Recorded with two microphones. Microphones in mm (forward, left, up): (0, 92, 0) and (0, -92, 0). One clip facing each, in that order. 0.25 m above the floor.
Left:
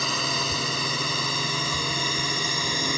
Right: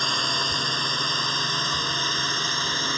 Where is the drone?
5° left (ahead or behind); by 3.0 s 10° left (ahead or behind).